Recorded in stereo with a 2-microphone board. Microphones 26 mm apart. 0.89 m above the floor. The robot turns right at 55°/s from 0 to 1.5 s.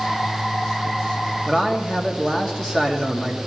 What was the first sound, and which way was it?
A man speaking, 20° left (ahead or behind).